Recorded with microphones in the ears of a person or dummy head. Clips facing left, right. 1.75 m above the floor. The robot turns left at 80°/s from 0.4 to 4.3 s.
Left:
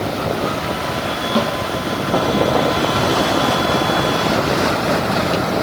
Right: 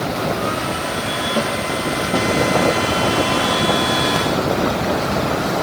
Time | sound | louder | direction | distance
1.4 | a snare drum | left 3 dB | 50° left (ahead or behind) | 3.5 m